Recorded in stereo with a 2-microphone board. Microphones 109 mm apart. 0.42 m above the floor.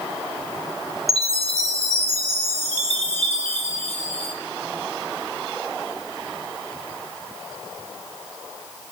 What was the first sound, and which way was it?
A chime, 80° right.